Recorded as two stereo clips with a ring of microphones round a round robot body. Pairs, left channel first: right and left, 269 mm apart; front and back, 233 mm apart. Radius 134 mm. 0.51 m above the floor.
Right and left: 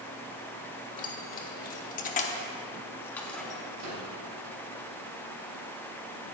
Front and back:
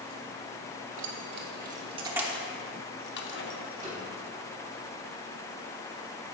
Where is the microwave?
110° left, 4 m.